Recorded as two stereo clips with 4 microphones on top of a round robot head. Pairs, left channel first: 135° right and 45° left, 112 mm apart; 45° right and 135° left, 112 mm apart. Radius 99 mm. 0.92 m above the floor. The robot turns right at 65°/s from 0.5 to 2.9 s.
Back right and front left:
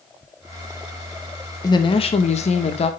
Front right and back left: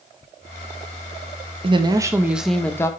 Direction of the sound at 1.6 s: 170° left.